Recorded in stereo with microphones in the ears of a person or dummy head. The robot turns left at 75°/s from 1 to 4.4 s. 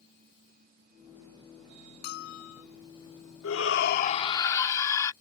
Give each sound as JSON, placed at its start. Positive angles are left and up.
{"t": 2.0, "sound": "a bell", "azimuth_deg": 125}
{"t": 3.4, "sound": "a shout", "azimuth_deg": 95}